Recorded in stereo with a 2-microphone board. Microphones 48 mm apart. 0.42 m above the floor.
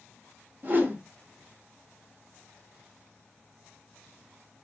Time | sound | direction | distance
0.6 | a whoosh | 40° right (ahead or behind) | 0.8 m